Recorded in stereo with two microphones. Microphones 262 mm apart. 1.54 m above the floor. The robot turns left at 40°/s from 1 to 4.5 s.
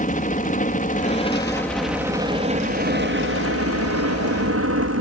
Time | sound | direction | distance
0.0 | a helicopter | 35° left | ?